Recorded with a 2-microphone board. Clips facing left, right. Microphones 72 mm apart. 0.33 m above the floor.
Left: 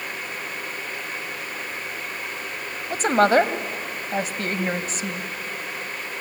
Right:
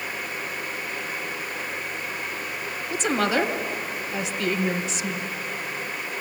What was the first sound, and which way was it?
A woman speaking, 45° left (ahead or behind).